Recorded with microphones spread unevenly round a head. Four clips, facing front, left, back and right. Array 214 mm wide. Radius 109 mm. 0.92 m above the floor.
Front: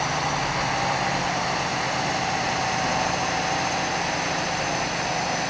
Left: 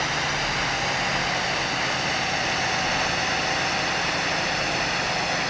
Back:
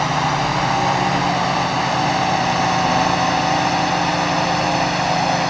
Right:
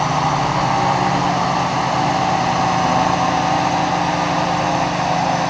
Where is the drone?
125° right; by 5.5 s 130° right.